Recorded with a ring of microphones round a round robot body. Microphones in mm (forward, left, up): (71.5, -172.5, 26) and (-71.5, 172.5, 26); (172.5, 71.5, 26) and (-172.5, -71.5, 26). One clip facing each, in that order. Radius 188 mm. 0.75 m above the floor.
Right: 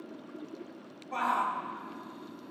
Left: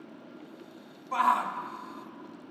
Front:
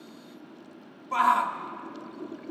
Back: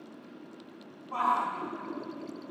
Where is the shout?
60° left, 1.3 m.